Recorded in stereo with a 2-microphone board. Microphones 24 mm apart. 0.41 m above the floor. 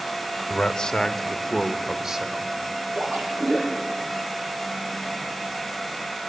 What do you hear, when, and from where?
0.5 s a man speaking: 40° left (ahead or behind), 1.3 m; by 2.5 s 30° right (ahead or behind), 1.4 m
3.0 s a splash: 70° right (ahead or behind), 6 m